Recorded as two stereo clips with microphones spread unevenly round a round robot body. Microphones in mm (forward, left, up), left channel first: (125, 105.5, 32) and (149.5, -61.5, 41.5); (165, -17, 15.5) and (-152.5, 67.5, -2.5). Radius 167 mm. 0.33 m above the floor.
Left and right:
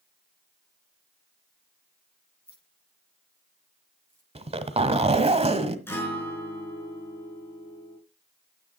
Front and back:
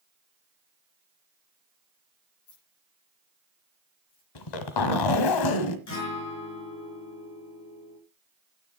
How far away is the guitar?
About 5.5 m.